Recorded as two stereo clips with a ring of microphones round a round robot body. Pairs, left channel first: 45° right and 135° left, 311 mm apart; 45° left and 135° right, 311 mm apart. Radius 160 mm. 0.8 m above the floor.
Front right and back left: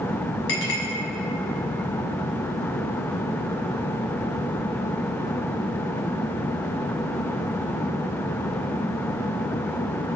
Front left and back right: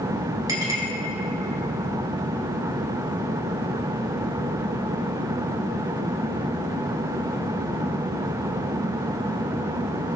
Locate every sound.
0.5 s a clink: 55° right, 4.5 m